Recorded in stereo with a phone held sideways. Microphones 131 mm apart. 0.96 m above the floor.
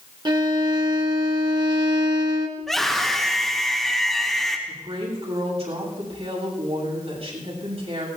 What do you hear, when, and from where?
0.2 s a violin: 35° right (ahead or behind), 1.3 m
2.6 s a scream: centre (ahead or behind), 2.5 m
4.7 s a woman speaking: 50° right (ahead or behind), 6.5 m